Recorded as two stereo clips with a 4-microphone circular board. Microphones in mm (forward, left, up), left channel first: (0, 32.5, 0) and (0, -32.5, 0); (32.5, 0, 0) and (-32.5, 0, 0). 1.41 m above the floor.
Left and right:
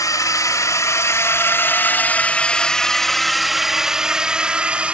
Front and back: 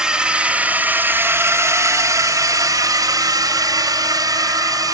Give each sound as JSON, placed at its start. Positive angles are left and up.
{"t": 0.0, "sound": "a drone", "azimuth_deg": 105}